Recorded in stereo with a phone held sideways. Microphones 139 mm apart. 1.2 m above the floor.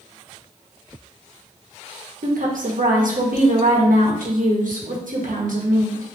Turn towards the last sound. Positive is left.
turn(degrees=-75)  # may be behind; listen again after turning